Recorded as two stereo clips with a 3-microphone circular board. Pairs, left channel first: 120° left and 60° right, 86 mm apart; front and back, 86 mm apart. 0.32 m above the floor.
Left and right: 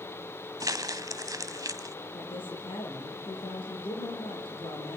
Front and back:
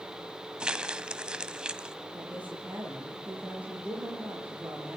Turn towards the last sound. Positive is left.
turn(degrees=105)